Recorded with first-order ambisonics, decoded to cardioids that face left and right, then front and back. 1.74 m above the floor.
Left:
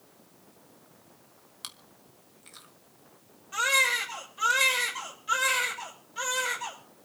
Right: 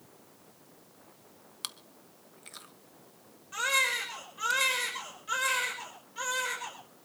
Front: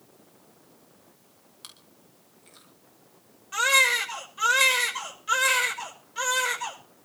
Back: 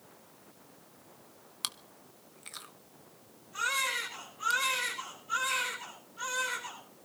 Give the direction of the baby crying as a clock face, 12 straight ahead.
12 o'clock.